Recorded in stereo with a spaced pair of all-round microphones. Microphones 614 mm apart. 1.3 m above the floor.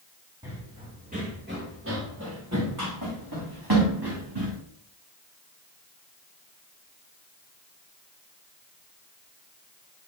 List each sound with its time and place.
0.4 s running footsteps: 5° right (ahead or behind), 3.5 m; by 4.5 s 40° right (ahead or behind), 4.5 m